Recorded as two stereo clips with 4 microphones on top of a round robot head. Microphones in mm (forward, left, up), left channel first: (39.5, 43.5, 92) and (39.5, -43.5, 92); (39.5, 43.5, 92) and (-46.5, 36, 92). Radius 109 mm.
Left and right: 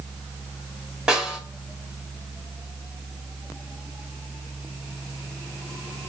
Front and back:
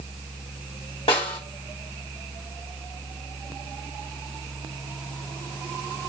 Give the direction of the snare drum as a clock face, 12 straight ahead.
12 o'clock.